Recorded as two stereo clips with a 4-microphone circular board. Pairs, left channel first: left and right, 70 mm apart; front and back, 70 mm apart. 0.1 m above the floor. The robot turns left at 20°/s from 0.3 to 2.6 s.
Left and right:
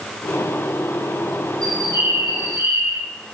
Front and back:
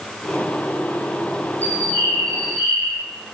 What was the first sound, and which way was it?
A bird, 60° right.